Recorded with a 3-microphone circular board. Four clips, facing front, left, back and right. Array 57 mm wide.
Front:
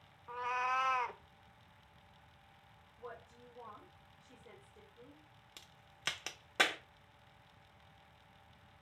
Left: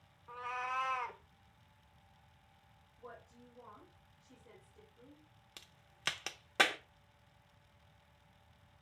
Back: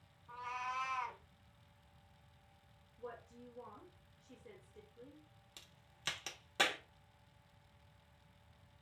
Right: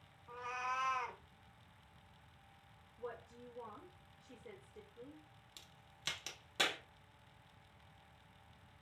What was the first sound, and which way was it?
A cat meowing, 15° left.